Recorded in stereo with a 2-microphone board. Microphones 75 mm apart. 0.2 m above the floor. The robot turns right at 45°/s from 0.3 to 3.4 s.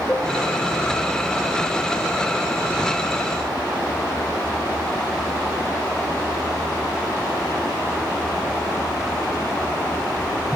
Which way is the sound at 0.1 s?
Centre (ahead or behind).